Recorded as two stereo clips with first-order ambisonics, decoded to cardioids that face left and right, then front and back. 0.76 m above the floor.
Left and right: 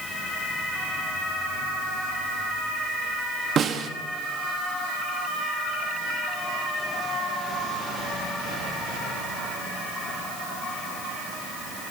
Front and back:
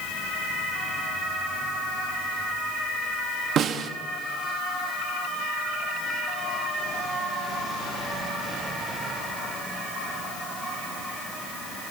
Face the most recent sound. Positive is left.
turn(degrees=-140)